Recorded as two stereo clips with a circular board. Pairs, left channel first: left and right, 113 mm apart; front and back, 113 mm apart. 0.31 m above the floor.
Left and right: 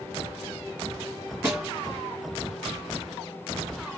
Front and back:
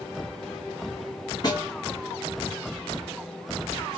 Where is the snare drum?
30° right, 1.8 m.